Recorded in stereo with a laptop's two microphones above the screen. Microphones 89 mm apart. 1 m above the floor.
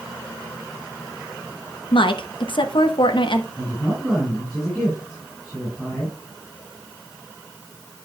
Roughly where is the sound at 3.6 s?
Centre.